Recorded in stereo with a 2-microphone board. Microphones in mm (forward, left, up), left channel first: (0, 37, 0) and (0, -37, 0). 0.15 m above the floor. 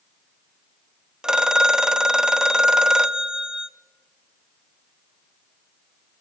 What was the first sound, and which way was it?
A phone ringing, 10° right (ahead or behind).